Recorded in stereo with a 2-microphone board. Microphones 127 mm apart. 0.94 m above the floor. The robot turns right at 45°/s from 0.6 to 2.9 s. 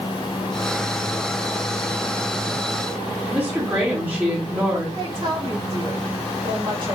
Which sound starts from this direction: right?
A woman speaking, at 5.0 s.